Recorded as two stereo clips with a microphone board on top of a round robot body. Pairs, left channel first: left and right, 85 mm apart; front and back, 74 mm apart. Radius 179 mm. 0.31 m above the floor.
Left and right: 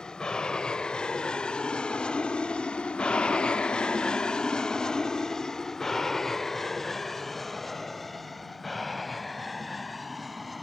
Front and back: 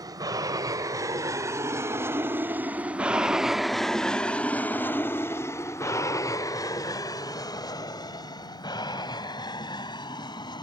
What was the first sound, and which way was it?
An aircraft, 170° left.